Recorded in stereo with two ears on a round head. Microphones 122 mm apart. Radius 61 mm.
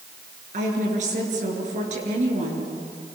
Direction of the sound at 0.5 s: 60° right (ahead or behind).